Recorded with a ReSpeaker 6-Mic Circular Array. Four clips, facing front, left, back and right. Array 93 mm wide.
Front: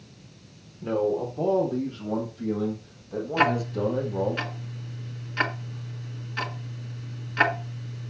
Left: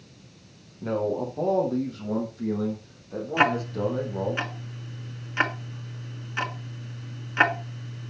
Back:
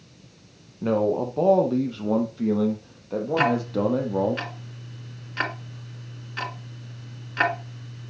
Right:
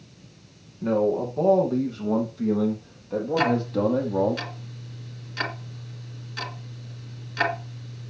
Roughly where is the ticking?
Left.